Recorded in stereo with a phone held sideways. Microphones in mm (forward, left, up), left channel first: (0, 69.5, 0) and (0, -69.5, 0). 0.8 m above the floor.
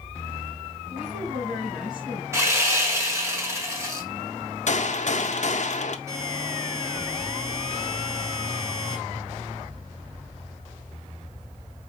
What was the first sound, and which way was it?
A woman speaking, centre (ahead or behind).